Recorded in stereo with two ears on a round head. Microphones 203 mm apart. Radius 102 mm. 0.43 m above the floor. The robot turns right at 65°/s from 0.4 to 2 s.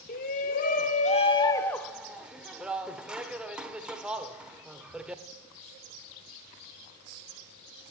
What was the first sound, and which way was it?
A shout, 85° left.